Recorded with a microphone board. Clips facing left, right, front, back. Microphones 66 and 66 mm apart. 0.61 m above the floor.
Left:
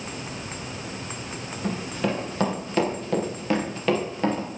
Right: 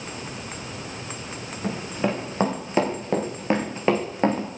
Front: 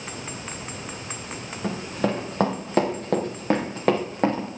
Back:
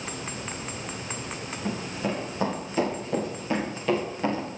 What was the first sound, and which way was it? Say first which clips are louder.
Running footsteps: right 1 dB, front 4 dB; 20° right.